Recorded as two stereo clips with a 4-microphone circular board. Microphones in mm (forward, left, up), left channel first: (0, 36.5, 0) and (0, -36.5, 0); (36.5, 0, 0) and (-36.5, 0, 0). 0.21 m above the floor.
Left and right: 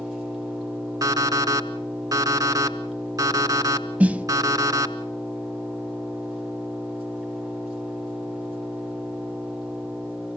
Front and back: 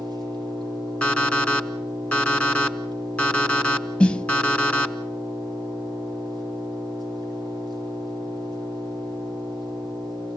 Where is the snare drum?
50° right, 0.6 m.